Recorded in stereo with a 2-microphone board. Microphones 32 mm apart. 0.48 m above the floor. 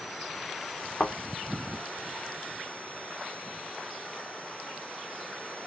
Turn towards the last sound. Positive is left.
turn(degrees=70)  # may be behind; listen again after turning